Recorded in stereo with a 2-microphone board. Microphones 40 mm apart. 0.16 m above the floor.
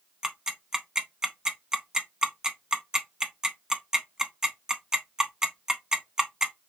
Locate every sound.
0.2 s ticking: 15° right (ahead or behind), 0.5 m